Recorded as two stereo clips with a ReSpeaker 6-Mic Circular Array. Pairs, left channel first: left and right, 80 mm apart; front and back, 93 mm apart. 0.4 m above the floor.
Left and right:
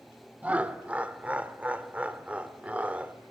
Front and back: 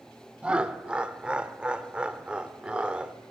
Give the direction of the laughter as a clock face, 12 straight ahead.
4 o'clock.